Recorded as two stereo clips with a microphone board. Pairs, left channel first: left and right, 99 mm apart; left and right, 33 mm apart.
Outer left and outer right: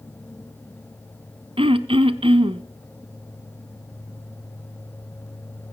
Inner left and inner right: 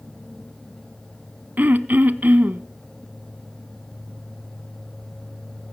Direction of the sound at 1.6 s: 70° right (ahead or behind).